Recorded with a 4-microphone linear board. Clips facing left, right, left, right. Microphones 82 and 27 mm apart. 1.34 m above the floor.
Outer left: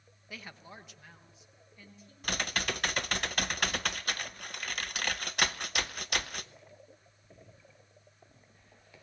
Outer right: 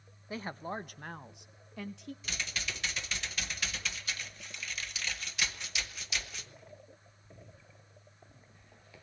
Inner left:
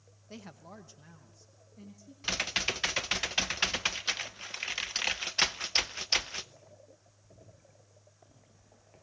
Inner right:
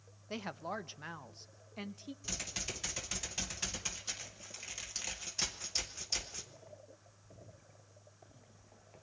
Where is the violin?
No violin in this recording.